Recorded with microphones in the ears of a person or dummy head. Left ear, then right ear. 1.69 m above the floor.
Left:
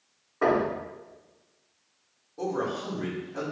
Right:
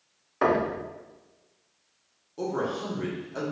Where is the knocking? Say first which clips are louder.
Even; 70° right (ahead or behind), 1.0 m.